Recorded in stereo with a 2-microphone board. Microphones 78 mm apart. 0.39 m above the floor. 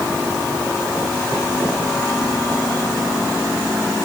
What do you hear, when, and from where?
Only background noise.